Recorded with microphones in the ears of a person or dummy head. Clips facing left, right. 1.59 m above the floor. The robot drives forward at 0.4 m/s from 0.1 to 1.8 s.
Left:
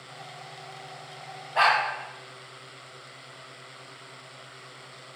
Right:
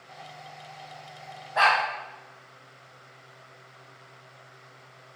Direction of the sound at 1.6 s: 25° left (ahead or behind).